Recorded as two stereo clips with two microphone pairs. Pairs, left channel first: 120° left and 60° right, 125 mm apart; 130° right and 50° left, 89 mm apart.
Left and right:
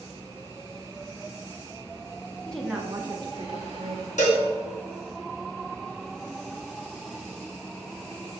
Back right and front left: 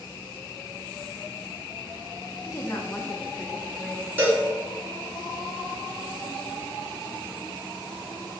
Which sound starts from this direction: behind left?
A cowbell, at 4.2 s.